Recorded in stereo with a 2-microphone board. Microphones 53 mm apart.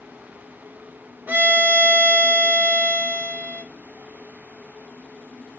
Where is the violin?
35° right (ahead or behind), 0.9 m.